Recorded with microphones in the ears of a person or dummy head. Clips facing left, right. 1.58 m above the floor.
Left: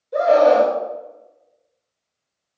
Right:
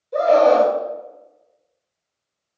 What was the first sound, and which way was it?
A scream, centre (ahead or behind).